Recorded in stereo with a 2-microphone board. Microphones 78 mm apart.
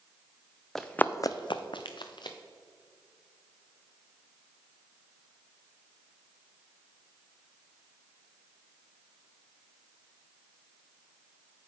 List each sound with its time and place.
0.8 s running footsteps: 5° left (ahead or behind), 0.6 m; by 2.4 s 65° left (ahead or behind), 1.1 m